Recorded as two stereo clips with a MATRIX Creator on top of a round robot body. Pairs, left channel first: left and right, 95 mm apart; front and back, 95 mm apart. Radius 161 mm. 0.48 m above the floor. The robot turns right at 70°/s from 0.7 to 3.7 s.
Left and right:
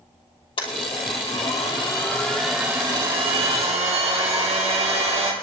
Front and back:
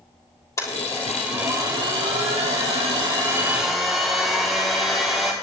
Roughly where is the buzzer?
I don't hear a buzzer.